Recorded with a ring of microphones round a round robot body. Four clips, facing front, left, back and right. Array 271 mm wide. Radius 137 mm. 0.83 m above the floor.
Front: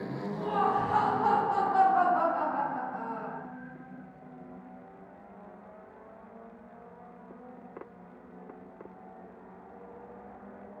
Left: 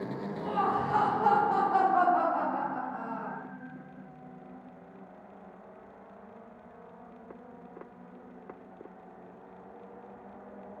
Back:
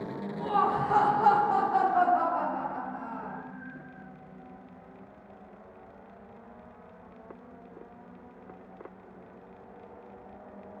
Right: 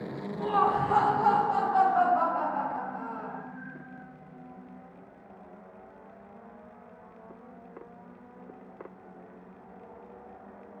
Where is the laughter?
125° right, 0.9 m; by 3.4 s 85° left, 1.6 m.